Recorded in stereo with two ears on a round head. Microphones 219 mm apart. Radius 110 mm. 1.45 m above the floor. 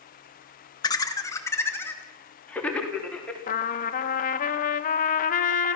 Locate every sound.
0.8 s laughter: 15° left (ahead or behind), 1.8 m; by 3.4 s 5° left (ahead or behind), 3.5 m
3.5 s a trumpet: 35° left (ahead or behind), 1.1 m